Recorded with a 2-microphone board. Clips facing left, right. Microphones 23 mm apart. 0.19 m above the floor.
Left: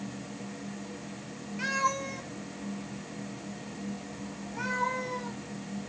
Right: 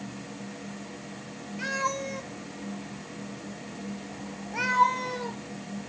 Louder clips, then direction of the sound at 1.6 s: Even; 5° left (ahead or behind).